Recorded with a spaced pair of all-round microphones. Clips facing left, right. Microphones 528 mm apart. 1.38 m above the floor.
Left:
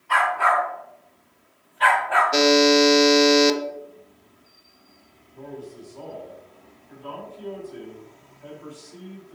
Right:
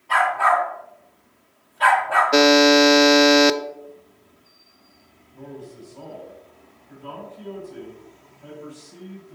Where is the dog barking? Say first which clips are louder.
Right 2 dB; 55° right (ahead or behind), 3.5 m.